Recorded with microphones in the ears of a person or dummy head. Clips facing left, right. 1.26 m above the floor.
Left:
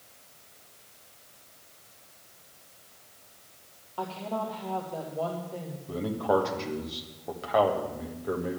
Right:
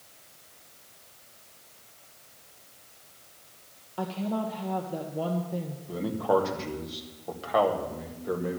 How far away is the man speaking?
About 1.7 m.